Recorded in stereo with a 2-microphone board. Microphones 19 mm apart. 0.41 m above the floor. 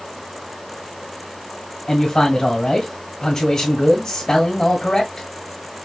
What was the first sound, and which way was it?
A man speaking, 25° left (ahead or behind).